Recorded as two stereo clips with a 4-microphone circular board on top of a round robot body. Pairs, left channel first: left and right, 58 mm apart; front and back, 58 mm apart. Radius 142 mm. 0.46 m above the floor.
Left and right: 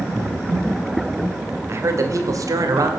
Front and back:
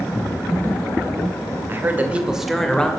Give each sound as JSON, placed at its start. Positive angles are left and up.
{"t": 1.7, "sound": "a man speaking", "azimuth_deg": -130, "distance_m": 2.0}